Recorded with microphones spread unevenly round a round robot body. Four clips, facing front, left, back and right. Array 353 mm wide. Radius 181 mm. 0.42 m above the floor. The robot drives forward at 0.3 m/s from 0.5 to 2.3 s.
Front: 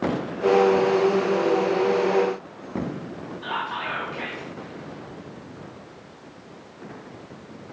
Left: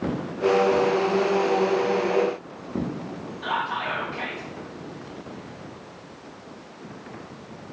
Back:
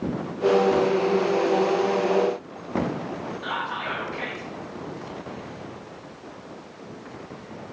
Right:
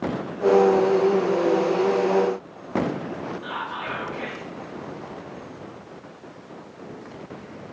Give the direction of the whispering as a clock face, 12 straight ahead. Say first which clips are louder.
Left 4 dB, front 2 dB; 9 o'clock.